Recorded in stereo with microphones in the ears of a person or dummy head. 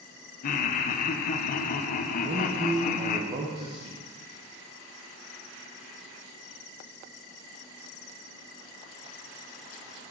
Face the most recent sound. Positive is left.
turn(degrees=-30)  # may be behind; listen again after turning